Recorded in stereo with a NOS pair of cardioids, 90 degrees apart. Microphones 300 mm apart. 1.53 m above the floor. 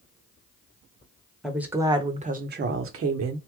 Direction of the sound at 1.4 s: Straight ahead.